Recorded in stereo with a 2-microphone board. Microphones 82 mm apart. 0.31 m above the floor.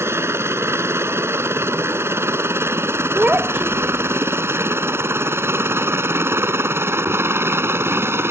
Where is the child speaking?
20° right (ahead or behind).